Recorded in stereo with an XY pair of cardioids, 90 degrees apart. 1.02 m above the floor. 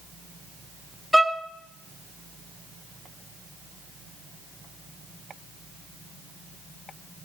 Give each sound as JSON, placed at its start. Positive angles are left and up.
{"t": 1.1, "sound": "a violin", "azimuth_deg": -5, "distance_m": 1.0}